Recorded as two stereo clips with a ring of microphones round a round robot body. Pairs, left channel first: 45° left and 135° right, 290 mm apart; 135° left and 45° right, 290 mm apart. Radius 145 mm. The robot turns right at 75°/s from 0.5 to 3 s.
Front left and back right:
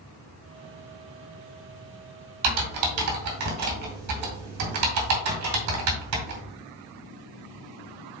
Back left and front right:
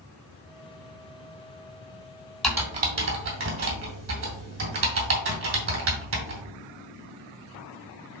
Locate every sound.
2.4 s typing on a keyboard: 135° right, 2.5 m; by 6.4 s 95° right, 2.5 m